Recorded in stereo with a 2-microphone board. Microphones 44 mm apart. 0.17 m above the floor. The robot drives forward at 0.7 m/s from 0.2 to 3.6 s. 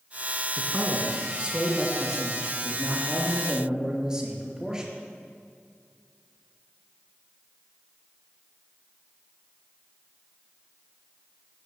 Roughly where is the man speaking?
Right.